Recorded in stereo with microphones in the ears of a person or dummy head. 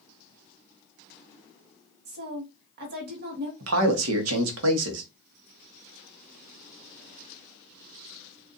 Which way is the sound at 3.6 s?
85° right.